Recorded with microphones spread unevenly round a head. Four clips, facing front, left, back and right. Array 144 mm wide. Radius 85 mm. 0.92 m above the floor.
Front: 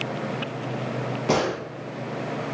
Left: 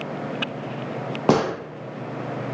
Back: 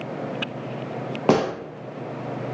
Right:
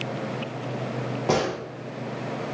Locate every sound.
1.3 s a gunshot: 115° left, 0.8 m